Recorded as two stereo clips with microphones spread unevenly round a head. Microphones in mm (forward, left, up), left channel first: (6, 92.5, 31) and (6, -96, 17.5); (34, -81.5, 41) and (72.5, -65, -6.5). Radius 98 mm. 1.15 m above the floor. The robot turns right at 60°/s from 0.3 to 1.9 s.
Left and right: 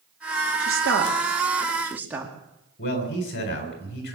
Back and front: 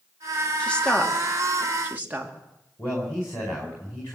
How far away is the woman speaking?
About 2.5 m.